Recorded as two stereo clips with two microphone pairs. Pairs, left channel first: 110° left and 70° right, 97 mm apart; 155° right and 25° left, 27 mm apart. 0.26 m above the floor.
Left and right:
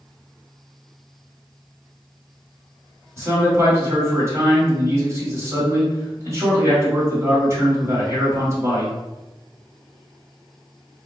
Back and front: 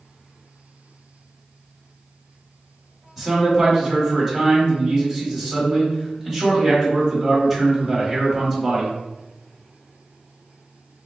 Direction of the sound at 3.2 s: 75° right.